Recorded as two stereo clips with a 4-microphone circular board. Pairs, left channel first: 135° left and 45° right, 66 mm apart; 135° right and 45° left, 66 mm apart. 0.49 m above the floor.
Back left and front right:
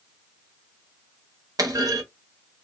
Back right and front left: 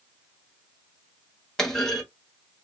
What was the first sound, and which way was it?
A clunk, 50° right.